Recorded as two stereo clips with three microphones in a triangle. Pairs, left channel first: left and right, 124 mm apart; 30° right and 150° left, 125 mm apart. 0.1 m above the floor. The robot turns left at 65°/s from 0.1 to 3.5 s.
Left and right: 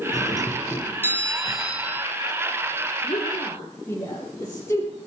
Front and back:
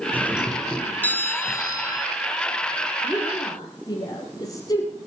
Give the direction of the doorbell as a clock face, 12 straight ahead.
9 o'clock.